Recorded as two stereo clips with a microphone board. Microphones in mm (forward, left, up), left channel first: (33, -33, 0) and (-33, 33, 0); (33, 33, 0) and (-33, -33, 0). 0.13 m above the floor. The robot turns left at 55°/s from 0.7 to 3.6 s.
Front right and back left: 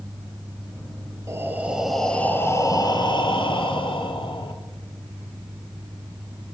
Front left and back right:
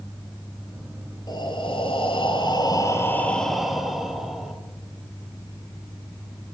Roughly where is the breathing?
Left.